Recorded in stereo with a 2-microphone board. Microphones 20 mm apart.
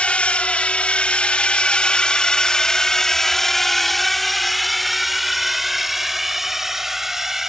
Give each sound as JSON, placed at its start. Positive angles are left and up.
{"t": 0.0, "sound": "a drone", "side_deg": 80}